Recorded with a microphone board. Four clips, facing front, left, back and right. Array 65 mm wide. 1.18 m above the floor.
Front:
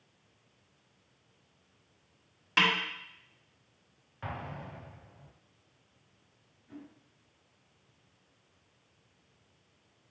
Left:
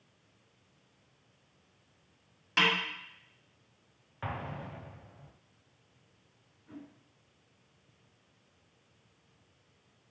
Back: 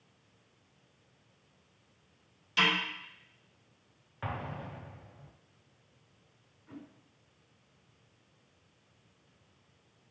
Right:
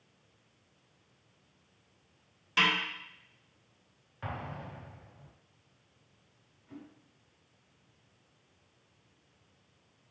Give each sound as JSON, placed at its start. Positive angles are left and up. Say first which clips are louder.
{"t": 2.6, "sound": "a snare drum", "louder": "even, front 2 dB", "azimuth_deg": 20, "distance_m": 1.7}
{"t": 4.2, "sound": "an explosion", "louder": "left 1 dB, back 2 dB", "azimuth_deg": 135, "distance_m": 0.6}
{"t": 6.7, "sound": "a whoosh", "louder": "left 1 dB, even", "azimuth_deg": 170, "distance_m": 1.9}